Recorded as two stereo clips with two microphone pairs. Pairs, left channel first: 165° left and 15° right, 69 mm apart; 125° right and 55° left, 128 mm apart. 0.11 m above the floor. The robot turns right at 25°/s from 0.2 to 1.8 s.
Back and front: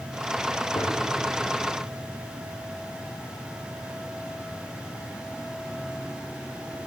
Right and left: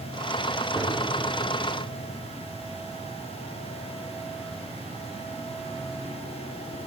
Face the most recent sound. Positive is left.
turn(degrees=160)